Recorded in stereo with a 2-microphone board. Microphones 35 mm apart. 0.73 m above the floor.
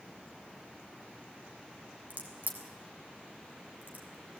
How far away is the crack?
About 3 m.